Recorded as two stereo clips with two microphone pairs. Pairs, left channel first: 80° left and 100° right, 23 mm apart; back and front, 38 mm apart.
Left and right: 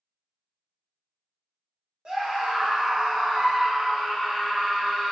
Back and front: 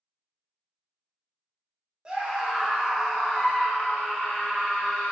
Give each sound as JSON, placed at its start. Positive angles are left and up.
{"t": 2.0, "sound": "a scream", "azimuth_deg": -55, "distance_m": 1.1}